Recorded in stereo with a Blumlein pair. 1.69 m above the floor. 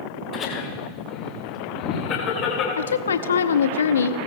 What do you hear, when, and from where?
0.3 s laughter: 30° left, 6.5 m; by 2.7 s 40° left, 7.5 m
2.8 s a woman speaking: 65° left, 0.6 m